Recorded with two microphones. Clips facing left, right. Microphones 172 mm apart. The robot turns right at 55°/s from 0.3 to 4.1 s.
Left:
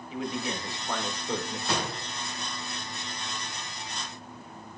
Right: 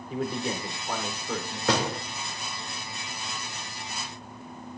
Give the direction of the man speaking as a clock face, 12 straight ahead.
1 o'clock.